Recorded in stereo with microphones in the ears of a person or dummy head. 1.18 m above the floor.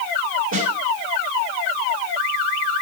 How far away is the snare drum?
About 4.5 m.